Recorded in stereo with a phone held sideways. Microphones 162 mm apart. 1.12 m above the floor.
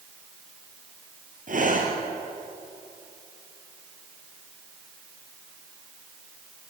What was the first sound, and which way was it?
Breathing, 60° right (ahead or behind).